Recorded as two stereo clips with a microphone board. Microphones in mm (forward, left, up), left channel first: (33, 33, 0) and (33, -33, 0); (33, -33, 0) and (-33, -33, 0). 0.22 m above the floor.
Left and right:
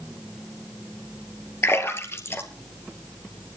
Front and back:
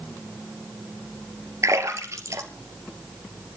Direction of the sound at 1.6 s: 140° left.